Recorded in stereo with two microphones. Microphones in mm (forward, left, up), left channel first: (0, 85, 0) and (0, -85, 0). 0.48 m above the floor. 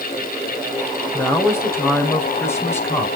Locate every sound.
1.1 s a man speaking: 15° left (ahead or behind), 2 m